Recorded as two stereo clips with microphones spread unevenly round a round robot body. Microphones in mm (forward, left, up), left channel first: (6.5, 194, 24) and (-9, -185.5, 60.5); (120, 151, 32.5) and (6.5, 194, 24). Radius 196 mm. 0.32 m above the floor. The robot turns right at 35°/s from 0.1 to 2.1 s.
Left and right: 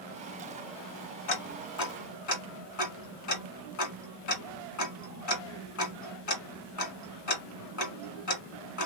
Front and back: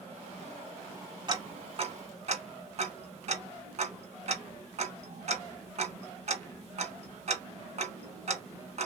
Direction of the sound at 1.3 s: 105° left.